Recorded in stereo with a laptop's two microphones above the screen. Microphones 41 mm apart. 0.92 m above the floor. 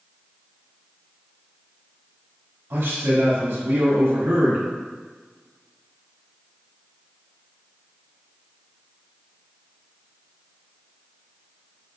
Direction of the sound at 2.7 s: 70° right (ahead or behind).